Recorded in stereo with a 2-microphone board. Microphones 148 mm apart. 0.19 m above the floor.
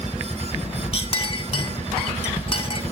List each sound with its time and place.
0.9 s a clink: 40° left (ahead or behind), 0.8 m